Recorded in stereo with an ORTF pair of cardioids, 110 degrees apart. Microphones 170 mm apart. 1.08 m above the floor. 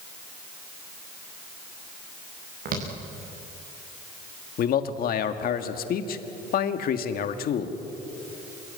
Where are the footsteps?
60° right, 7 m.